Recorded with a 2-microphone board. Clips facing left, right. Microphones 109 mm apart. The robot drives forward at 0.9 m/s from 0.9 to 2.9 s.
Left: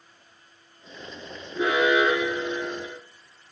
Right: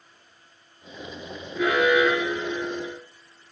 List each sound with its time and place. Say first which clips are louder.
1.6 s an alarm: right 1 dB; 25° left (ahead or behind), 5 m